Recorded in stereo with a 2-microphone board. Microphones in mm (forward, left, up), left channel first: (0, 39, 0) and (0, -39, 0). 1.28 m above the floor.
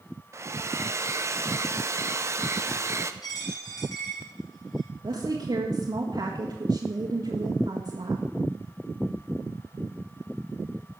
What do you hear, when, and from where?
0.3 s a hair dryer: 35° right (ahead or behind), 0.7 m
3.2 s a dropped coin: 55° left (ahead or behind), 4.5 m
5.0 s a woman speaking: 80° right, 1.8 m